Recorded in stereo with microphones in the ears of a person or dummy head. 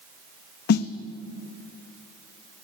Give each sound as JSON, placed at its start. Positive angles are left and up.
{"t": 0.7, "sound": "a snare drum", "side_deg": 55, "distance_m": 0.5}